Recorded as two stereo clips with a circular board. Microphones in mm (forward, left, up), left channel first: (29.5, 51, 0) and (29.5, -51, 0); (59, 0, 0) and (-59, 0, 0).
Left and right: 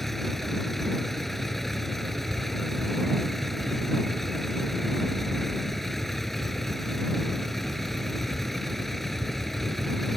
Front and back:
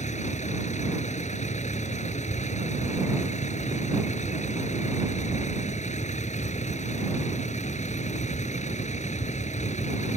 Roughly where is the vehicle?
Ahead.